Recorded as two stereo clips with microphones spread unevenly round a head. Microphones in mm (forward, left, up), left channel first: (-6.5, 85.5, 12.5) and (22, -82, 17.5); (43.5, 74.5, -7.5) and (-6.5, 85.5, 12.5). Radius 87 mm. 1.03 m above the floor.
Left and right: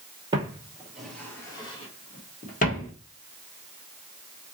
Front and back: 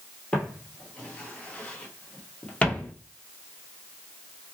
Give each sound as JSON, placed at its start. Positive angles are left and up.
{"t": 0.3, "sound": "footsteps", "azimuth_deg": -115, "distance_m": 1.1}